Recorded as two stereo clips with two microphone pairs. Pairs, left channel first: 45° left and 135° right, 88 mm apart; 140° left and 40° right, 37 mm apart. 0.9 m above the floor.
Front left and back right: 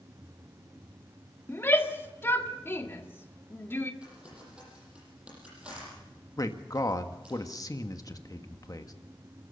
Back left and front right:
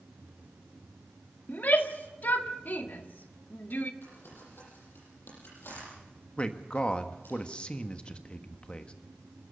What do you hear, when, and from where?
1.5 s a shout: 110° left, 1.7 m
4.0 s crumpling: 145° left, 9 m
6.4 s a man speaking: 85° left, 1.4 m